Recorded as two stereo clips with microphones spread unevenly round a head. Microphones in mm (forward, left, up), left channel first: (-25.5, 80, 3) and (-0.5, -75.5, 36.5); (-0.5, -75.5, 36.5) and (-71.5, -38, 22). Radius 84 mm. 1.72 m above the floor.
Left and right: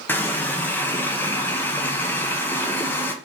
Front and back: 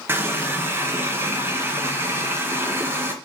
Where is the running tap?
170° right, 0.7 m.